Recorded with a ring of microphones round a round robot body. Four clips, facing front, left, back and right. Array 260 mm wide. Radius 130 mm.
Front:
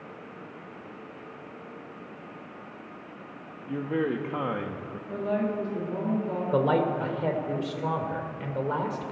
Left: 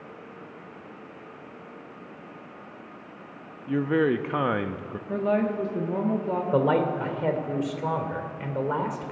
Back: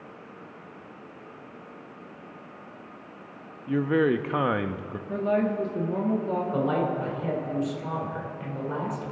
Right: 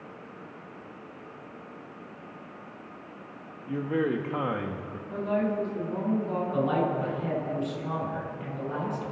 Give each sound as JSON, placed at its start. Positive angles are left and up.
{"t": 3.7, "sound": "a man speaking", "azimuth_deg": 135, "distance_m": 0.5}
{"t": 5.1, "sound": "a woman speaking", "azimuth_deg": 115, "distance_m": 1.6}
{"t": 6.5, "sound": "a man speaking", "azimuth_deg": 60, "distance_m": 2.0}